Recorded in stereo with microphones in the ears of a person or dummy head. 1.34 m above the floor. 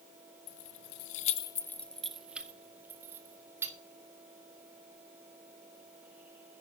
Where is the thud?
No thud in this recording.